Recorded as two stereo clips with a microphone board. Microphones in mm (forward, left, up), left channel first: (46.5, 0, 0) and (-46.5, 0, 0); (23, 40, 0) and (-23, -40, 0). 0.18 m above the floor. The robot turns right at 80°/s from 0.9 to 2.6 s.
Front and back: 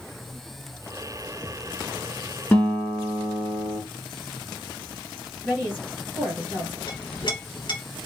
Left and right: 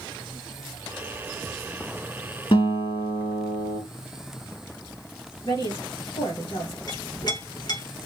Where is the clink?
25° left, 1.8 m.